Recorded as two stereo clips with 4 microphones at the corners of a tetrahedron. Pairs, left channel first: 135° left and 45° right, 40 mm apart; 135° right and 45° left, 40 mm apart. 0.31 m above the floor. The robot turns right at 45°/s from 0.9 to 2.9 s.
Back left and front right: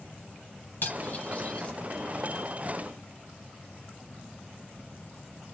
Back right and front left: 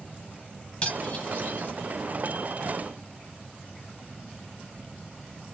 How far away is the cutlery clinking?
About 1.3 m.